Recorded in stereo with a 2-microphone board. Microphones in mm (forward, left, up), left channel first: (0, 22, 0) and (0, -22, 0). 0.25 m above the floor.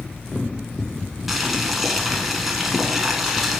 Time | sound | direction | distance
1.3 | boiling | 5° right (ahead or behind) | 0.9 m